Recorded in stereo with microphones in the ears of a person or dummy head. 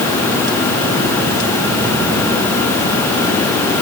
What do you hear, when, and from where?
Only background noise.